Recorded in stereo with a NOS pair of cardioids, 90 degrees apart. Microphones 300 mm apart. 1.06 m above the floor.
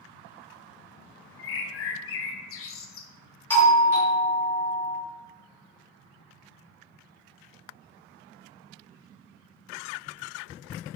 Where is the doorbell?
5° left, 1.6 m.